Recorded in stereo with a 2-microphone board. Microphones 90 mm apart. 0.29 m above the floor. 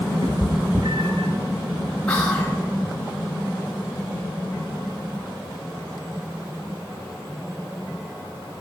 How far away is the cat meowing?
About 1.0 m.